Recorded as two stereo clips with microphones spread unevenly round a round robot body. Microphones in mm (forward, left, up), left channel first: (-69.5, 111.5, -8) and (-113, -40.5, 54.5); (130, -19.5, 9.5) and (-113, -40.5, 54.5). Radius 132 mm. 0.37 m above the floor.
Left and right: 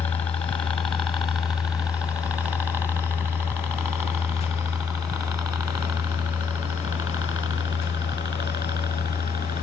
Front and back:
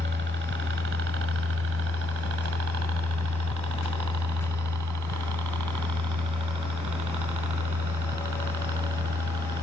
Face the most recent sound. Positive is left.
turn(degrees=-170)